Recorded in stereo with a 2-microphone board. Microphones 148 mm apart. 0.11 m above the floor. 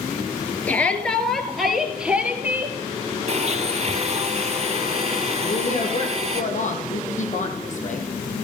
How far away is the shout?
About 2.5 m.